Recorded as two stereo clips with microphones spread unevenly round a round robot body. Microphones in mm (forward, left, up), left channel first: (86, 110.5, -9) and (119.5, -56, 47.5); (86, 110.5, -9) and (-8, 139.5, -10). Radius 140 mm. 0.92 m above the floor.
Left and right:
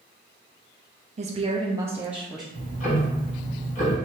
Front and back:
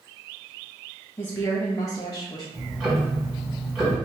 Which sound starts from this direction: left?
Ticking, at 2.5 s.